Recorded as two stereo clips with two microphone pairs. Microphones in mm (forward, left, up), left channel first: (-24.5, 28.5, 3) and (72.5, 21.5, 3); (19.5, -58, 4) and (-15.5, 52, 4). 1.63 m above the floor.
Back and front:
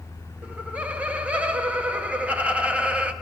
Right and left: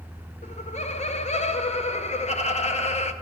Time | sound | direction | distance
0.4 | laughter | 75° right | 1.0 m